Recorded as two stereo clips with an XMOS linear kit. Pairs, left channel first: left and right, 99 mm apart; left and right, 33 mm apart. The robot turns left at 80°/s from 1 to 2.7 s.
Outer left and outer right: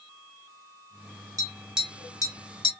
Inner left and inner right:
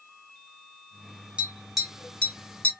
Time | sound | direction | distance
1.4 | tapping | 35° right (ahead or behind) | 1.0 m